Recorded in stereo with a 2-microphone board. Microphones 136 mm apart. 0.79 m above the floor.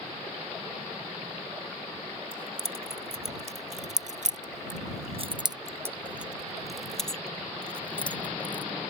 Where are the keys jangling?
40° right (ahead or behind); by 8.7 s 15° left (ahead or behind).